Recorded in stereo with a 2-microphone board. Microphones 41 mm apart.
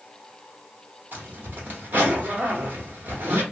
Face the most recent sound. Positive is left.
turn(degrees=-55)  # may be behind; listen again after turning